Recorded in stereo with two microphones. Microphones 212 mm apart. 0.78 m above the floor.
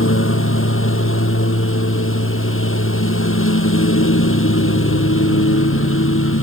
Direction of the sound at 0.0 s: 80° left.